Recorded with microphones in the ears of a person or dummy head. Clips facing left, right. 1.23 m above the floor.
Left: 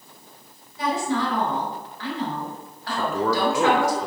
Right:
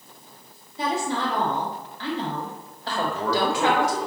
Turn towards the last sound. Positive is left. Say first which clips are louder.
# left 2 dB
turn(degrees=65)  # may be behind; listen again after turning